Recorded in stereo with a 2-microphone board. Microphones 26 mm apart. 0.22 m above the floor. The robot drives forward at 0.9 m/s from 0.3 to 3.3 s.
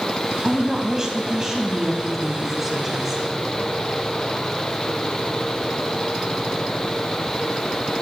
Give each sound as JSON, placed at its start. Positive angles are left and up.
{"t": 0.4, "sound": "a woman speaking", "side_deg": -20, "distance_m": 1.1}